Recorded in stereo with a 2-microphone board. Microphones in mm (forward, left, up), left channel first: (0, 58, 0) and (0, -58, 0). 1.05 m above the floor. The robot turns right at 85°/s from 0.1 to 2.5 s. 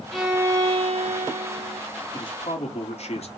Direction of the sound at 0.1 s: 175° left.